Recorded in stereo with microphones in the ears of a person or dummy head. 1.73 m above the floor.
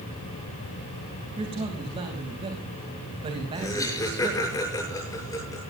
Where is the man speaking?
25° right (ahead or behind), 3 m.